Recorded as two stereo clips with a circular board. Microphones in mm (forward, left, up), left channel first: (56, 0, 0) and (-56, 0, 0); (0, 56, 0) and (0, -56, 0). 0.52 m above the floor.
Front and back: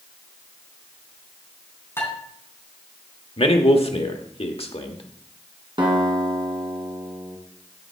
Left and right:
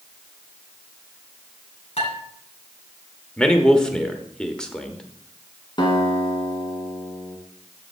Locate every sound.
2.0 s dishes clattering: 65° left, 3.5 m
3.4 s a man speaking: 10° left, 1.1 m
5.8 s a guitar: 135° left, 2 m